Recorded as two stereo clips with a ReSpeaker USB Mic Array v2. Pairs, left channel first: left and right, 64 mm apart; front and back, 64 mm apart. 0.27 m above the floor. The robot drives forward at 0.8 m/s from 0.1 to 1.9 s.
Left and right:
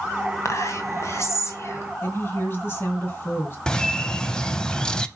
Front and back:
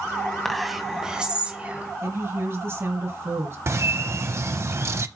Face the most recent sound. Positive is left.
turn(degrees=160)